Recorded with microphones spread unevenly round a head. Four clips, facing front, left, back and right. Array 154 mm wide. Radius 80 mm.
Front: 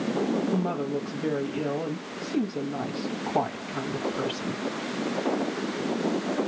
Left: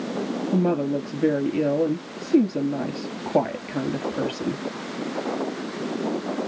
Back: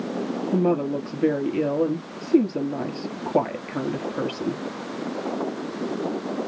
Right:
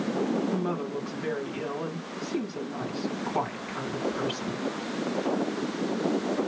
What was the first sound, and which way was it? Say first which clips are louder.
A woman speaking: left 7 dB, back 6 dB; 130° left.